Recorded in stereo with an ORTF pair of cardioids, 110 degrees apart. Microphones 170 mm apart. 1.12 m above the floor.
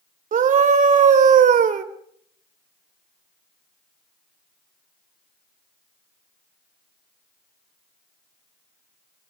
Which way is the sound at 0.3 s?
45° right.